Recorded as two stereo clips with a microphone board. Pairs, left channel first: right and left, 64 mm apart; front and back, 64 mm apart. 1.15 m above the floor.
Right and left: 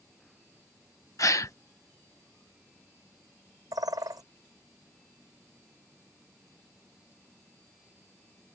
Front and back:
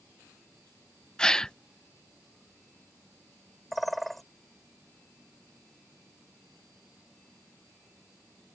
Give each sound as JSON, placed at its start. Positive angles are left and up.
{"t": 1.2, "sound": "a gasp", "azimuth_deg": -75}
{"t": 3.7, "sound": "a bird", "azimuth_deg": 90}